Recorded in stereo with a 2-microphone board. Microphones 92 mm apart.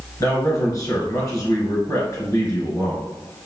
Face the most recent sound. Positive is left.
turn(degrees=40)  # may be behind; listen again after turning